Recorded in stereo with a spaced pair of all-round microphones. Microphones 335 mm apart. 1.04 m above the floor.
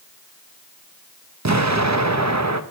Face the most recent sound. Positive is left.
turn(degrees=-55)  # may be behind; listen again after turning